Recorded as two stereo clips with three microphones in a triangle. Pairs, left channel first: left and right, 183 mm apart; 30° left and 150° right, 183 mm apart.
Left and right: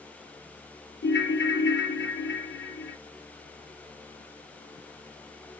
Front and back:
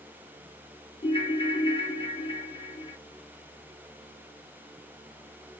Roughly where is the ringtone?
Left.